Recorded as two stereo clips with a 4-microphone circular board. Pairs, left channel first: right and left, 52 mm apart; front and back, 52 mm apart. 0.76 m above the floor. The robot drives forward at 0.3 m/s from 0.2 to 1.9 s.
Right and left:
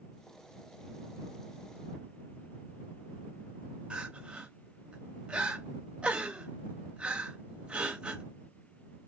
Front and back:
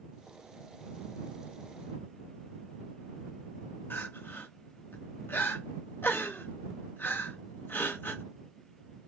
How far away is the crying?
About 0.6 m.